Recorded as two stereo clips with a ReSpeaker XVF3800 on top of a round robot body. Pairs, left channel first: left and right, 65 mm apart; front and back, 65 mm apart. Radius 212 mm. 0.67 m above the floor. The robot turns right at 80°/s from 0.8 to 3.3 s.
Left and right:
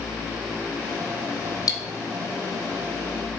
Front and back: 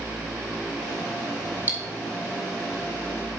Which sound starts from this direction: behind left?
Cutlery clinking, at 1.7 s.